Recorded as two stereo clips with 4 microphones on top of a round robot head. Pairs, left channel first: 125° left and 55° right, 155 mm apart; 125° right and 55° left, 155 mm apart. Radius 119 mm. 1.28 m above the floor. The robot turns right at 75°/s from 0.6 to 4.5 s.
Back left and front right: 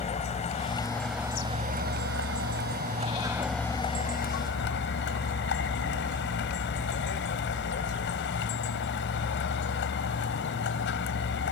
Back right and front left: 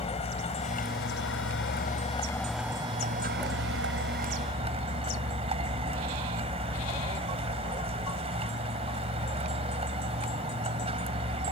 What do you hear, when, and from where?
0.0 s a vehicle: straight behind; by 11.5 s 110° left